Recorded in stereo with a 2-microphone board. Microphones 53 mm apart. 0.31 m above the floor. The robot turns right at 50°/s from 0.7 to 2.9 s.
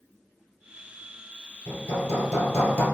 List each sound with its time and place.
1.7 s hammering: 85° left, 2.5 m; by 2.8 s 145° left, 2.5 m